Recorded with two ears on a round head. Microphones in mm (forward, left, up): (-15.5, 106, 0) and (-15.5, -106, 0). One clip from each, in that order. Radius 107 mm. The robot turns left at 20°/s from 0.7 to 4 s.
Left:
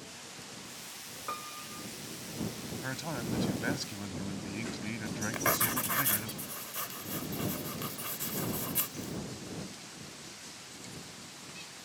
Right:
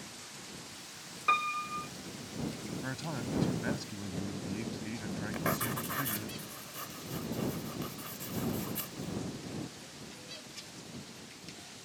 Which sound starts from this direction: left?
Writing, at 5.3 s.